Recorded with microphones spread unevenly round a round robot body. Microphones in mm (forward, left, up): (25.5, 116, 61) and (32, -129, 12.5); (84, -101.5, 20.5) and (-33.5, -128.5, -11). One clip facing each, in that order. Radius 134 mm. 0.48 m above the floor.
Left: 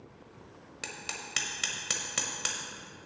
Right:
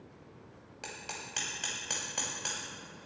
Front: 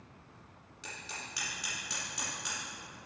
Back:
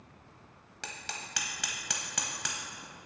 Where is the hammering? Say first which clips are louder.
Left 1 dB, back 3 dB; 160° left, 1.0 m.